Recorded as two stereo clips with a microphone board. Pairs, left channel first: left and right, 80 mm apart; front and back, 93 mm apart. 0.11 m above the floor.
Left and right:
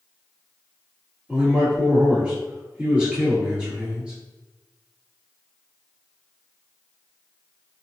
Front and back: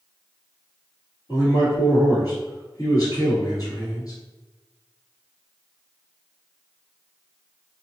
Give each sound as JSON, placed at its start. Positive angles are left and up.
{"t": 1.3, "sound": "a man speaking", "azimuth_deg": -15, "distance_m": 1.8}